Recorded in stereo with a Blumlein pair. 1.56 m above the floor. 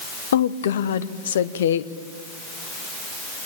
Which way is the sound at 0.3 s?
60° left.